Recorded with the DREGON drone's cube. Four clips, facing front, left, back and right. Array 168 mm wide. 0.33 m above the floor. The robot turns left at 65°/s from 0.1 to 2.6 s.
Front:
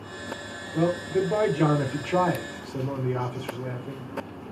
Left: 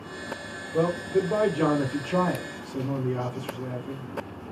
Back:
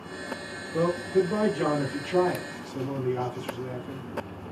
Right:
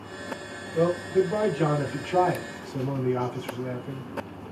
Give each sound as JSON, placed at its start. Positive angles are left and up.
{"t": 0.7, "sound": "a man speaking", "azimuth_deg": 105, "distance_m": 0.9}